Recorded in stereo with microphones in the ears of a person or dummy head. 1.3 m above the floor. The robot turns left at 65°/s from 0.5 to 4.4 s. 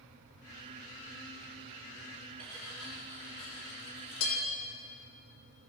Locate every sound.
2.4 s cutlery clinking: 40° right (ahead or behind), 3.5 m; by 4.4 s 85° left, 3.5 m